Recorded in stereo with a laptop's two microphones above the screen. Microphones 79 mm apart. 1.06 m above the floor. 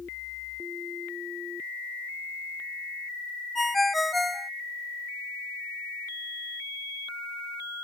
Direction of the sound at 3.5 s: Centre (ahead or behind).